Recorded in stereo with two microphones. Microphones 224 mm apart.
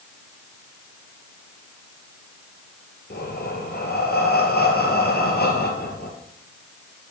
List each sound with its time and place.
3.1 s breathing: 45° left (ahead or behind), 2.5 m